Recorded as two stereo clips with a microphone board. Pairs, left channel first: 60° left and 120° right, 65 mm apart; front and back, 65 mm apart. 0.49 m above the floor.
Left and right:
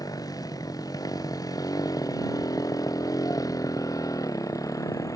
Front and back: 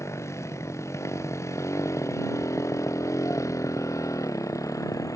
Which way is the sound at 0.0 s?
40° left.